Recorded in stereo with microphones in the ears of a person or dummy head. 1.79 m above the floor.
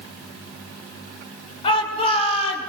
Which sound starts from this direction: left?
A shout, at 1.6 s.